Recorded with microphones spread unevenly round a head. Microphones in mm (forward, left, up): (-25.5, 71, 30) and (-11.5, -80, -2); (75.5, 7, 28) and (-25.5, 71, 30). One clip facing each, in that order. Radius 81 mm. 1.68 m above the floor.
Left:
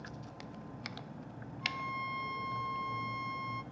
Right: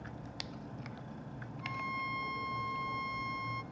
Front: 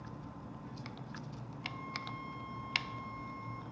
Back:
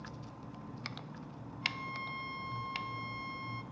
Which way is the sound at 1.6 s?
175° right.